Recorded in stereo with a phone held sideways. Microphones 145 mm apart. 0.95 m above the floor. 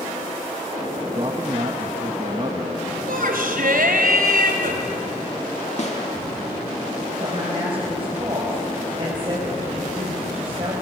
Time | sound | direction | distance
1.1 | a man speaking | 40° right (ahead or behind) | 1.2 m
3.1 | a shout | 80° right | 4 m
5.8 | a snare drum | 50° left (ahead or behind) | 2.5 m
7.2 | a woman speaking | 35° right (ahead or behind) | 4.5 m